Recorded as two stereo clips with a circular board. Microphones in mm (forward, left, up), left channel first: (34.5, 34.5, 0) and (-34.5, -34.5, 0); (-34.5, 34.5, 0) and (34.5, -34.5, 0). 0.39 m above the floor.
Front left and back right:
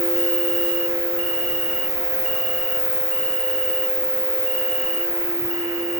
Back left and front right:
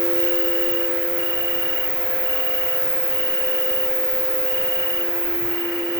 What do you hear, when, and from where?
0.0 s an insect: 120° left, 1.1 m